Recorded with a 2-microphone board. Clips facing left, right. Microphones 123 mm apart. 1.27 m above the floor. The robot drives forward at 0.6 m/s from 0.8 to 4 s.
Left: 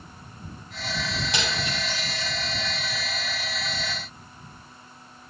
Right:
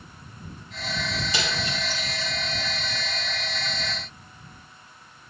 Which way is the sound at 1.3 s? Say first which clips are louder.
Even; 70° left (ahead or behind).